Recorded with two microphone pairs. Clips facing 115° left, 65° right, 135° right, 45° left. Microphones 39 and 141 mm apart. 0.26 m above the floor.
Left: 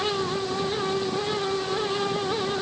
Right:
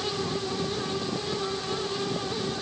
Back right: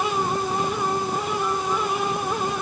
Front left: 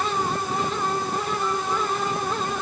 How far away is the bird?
I don't hear a bird.